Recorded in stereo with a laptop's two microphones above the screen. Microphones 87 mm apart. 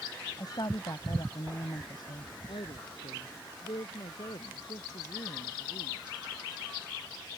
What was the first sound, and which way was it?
A woman speaking, 55° left (ahead or behind).